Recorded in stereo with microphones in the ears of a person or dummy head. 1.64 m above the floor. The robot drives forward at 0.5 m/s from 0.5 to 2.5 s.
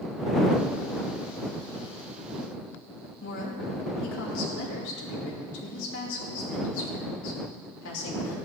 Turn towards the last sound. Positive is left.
turn(degrees=70)  # may be behind; listen again after turning